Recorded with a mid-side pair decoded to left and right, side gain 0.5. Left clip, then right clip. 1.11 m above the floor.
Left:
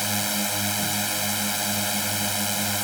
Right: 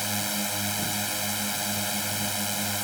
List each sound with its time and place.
0.0 s a drone: 25° left